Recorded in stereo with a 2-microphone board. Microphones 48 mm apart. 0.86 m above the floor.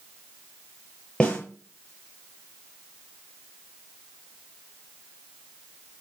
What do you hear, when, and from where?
1.2 s a snare drum: 25° left (ahead or behind), 7.5 m